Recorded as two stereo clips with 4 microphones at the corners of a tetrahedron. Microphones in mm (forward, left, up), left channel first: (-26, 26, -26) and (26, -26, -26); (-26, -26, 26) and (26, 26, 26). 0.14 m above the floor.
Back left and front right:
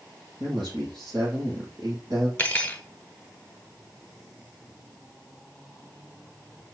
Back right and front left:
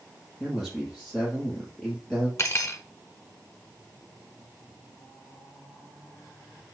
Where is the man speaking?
50° right, 4.5 m.